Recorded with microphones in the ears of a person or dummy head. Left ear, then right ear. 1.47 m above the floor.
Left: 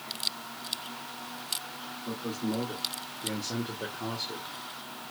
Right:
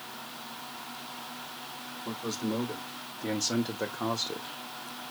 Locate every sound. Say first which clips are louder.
2.0 s a man speaking: right 1 dB; 60° right (ahead or behind), 1.5 m; by 4.5 s 55° right (ahead or behind), 0.7 m